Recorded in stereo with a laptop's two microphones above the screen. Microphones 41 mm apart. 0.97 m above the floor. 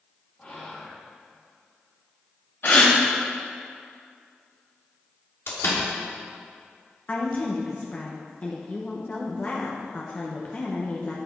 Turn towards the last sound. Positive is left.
turn(degrees=35)  # may be behind; listen again after turning